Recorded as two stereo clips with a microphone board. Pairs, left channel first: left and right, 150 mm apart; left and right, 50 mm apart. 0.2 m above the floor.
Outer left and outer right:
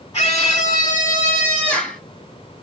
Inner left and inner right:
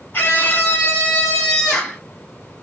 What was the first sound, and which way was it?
A scream, 35° left (ahead or behind).